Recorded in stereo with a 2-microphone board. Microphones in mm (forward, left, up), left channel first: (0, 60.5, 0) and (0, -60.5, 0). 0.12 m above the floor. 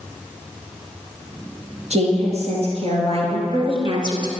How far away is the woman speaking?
About 3 m.